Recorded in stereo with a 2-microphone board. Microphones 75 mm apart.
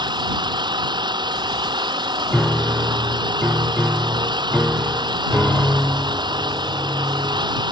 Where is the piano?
Centre (ahead or behind).